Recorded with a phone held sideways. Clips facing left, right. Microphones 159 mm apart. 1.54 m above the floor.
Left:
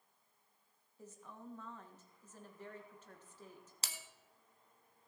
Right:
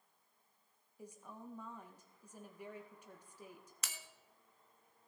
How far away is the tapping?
I don't hear tapping.